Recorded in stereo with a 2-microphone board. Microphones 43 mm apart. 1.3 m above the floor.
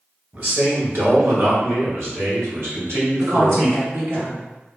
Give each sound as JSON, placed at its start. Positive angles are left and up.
{"t": 0.3, "sound": "a man speaking", "side_deg": -45, "distance_m": 1.4}
{"t": 3.2, "sound": "a woman speaking", "side_deg": -70, "distance_m": 1.3}